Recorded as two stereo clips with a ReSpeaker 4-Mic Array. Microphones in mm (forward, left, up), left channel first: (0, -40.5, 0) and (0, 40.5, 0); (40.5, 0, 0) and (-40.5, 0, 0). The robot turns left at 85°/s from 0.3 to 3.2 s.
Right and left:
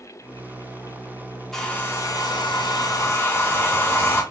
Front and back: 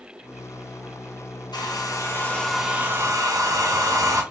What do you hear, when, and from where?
1.5 s a hair dryer: 5° right, 0.9 m; by 4.2 s 145° right, 0.9 m